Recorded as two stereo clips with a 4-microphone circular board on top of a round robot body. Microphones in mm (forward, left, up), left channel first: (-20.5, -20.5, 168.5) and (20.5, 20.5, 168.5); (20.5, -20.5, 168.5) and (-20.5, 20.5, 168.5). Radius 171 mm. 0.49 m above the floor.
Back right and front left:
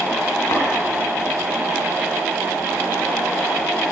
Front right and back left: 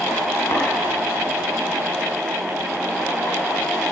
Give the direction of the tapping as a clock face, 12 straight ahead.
3 o'clock.